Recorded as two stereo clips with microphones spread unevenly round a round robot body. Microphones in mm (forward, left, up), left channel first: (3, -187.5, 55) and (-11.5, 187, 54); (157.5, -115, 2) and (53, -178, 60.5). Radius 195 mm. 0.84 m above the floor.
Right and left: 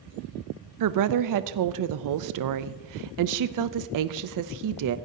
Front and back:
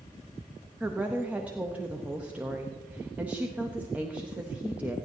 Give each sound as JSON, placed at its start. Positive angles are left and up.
{"t": 0.8, "sound": "a woman speaking", "azimuth_deg": 105, "distance_m": 0.5}